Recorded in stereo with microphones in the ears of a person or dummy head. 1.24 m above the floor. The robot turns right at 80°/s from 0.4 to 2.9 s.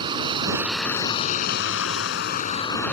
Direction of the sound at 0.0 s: 30° right.